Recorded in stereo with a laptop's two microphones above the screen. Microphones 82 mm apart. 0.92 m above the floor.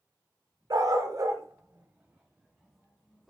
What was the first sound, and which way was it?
A dog barking, 55° right (ahead or behind).